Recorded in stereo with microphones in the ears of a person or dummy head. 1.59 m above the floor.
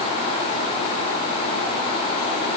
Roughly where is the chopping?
I don't hear chopping.